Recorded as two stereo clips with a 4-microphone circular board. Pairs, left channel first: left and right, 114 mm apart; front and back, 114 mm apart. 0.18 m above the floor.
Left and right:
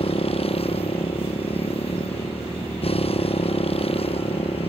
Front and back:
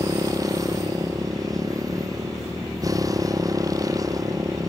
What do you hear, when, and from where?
0.0 s a motorcycle: 120° left